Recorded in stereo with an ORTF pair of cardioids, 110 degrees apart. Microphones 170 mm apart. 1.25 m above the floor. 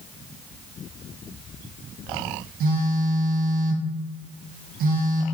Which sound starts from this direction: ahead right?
A phone buzzing, at 2.6 s.